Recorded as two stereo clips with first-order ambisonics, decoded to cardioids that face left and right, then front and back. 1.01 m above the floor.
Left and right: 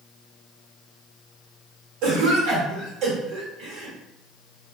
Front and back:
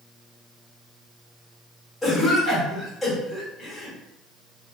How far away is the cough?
About 1.0 m.